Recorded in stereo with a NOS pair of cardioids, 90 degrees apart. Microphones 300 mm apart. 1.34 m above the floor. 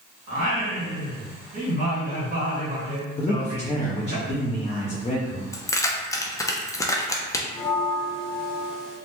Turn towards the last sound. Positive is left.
turn(degrees=0)